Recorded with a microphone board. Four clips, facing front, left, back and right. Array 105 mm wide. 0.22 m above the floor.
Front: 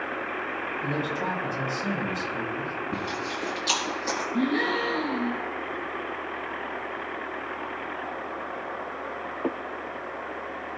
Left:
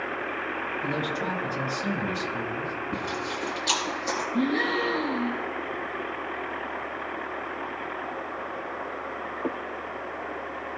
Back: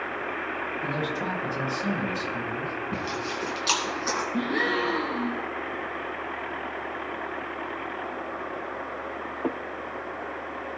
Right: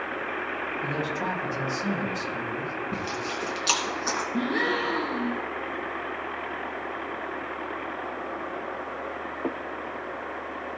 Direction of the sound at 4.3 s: 135° right.